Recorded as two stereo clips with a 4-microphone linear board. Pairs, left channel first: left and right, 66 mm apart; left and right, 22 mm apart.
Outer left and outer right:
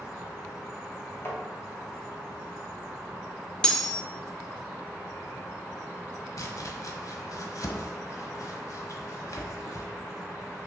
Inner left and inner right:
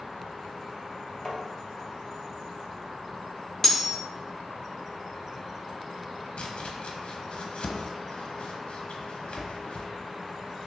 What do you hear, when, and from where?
1.2 s tapping: 40° left (ahead or behind), 1.9 m
3.6 s cutlery clinking: 10° left (ahead or behind), 0.7 m
6.4 s chopping: 60° left (ahead or behind), 1.2 m